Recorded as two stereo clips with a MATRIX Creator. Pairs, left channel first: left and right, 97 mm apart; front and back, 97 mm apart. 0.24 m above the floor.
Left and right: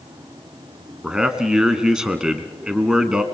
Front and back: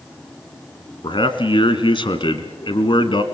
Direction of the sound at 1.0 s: 10° right.